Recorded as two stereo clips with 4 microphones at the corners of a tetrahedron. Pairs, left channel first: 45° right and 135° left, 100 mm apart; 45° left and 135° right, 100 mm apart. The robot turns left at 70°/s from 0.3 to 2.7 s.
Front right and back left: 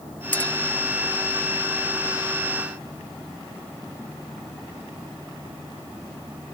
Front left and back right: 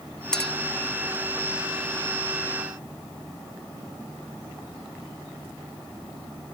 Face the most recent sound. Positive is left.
turn(degrees=170)